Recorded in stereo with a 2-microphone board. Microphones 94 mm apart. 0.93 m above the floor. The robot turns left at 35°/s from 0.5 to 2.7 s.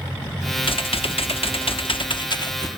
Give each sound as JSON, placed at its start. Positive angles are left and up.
{"t": 0.6, "sound": "typing on a keyboard", "azimuth_deg": 115, "distance_m": 1.0}